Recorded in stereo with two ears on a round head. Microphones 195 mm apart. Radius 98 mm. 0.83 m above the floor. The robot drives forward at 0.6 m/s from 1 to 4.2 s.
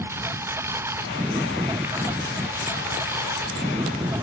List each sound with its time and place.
0.0 s a lawn mower: 10° right (ahead or behind)